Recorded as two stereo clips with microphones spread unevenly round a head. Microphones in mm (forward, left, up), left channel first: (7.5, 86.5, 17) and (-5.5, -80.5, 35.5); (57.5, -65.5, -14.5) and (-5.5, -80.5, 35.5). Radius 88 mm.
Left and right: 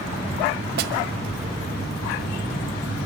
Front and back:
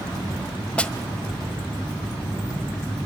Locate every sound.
0.8 s a snare drum: 85° right, 1.6 m